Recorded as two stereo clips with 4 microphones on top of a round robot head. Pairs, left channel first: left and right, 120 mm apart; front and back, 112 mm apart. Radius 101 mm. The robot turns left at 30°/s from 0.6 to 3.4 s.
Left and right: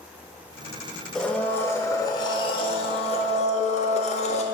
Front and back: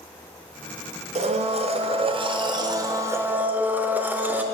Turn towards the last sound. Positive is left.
turn(degrees=105)